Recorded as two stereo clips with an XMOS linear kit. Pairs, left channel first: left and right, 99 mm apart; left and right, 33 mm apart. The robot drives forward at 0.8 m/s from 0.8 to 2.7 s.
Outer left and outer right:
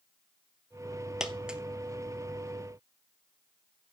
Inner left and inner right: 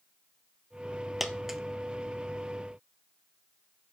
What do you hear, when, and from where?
1.2 s a dropped coin: 5° right (ahead or behind), 1.1 m; by 1.6 s 10° right (ahead or behind), 0.9 m